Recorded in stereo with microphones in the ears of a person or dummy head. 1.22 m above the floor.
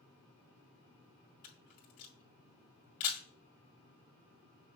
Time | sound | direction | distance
1.4 | a camera shutter | 45° left (ahead or behind) | 2.5 m